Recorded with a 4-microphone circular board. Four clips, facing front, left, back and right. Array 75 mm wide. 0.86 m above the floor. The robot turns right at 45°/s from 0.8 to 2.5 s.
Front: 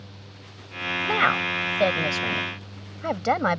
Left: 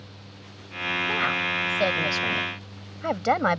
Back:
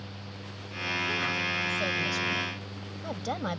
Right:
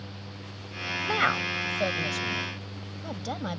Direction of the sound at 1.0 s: 20° right.